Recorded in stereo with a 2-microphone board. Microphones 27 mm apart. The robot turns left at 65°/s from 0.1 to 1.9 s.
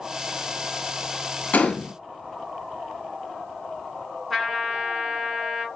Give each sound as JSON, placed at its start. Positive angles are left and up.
{"t": 1.5, "sound": "a gunshot", "side_deg": 70, "distance_m": 1.1}
{"t": 4.3, "sound": "a trumpet", "side_deg": -5, "distance_m": 2.5}